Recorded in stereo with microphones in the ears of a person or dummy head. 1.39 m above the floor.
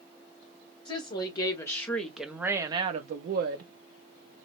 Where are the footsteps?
No footsteps in this recording.